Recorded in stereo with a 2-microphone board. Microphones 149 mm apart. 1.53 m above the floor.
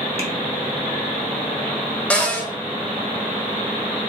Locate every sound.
0.2 s tapping: 45° right (ahead or behind), 0.7 m
2.1 s a cupboard door: 10° left (ahead or behind), 0.6 m